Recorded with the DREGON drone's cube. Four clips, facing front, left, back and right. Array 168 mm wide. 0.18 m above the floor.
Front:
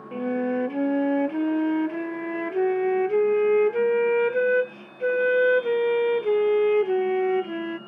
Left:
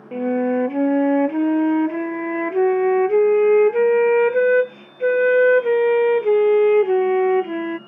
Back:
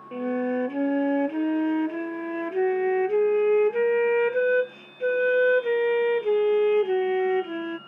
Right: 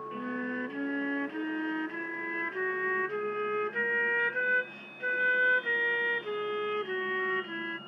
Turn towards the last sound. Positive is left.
turn(degrees=90)